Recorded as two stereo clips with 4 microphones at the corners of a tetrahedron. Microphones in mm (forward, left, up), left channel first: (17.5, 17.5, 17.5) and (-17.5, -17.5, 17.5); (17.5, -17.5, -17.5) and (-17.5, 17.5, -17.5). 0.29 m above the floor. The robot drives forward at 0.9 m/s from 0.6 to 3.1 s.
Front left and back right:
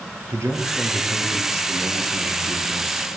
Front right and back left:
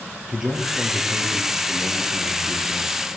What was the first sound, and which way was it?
A man speaking, 140° right.